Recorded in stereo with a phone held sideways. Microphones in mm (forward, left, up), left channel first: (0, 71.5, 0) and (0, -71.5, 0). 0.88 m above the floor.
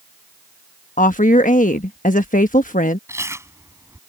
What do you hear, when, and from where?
1.0 s a woman speaking: 60° left (ahead or behind)
3.1 s chewing: 20° right (ahead or behind)